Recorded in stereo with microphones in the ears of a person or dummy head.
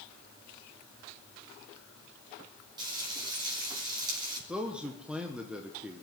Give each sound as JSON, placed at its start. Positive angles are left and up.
{"t": 2.8, "sound": "frying", "side_deg": -25, "distance_m": 5.0}
{"t": 4.5, "sound": "a man speaking", "side_deg": -5, "distance_m": 1.1}